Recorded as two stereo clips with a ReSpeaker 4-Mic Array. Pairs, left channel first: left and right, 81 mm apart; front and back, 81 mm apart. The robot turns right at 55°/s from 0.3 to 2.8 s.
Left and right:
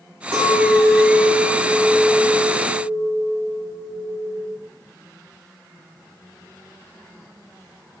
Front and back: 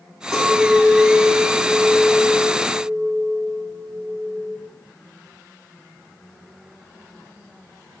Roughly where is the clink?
Right.